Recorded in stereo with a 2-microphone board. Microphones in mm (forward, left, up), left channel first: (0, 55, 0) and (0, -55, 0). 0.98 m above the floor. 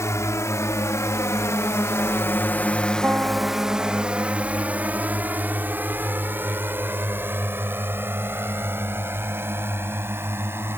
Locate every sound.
0.0 s a drone: 25° left (ahead or behind); by 10.8 s 20° right (ahead or behind)
3.0 s a piano: 15° right (ahead or behind)